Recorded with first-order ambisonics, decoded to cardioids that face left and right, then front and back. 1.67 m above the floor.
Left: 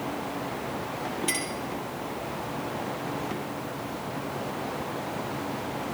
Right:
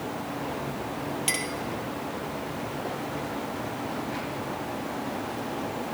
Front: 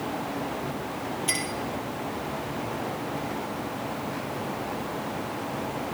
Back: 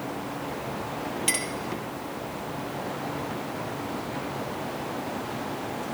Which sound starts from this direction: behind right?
A clink, at 1.3 s.